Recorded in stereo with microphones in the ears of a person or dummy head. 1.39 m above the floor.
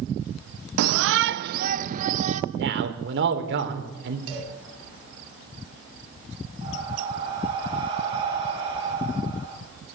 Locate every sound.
0.8 s a shout: 85° right, 0.5 m; by 2.4 s 35° right (ahead or behind), 1.6 m
2.5 s a man speaking: 60° right (ahead or behind), 4 m
4.3 s a cowbell: 70° right (ahead or behind), 9 m
6.6 s breathing: 25° right (ahead or behind), 8.5 m